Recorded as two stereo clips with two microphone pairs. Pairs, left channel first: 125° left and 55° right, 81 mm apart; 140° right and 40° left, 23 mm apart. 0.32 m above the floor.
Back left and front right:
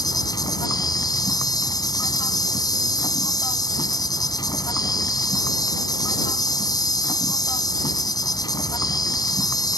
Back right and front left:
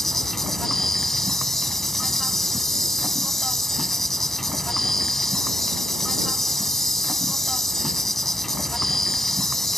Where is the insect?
145° left.